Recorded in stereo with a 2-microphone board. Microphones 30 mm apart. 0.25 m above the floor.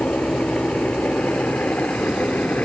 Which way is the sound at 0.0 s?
70° left (ahead or behind).